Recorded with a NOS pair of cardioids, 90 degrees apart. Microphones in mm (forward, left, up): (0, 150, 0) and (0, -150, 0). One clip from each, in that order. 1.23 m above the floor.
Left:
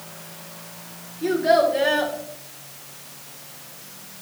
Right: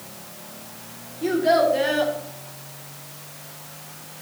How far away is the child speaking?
About 2.5 m.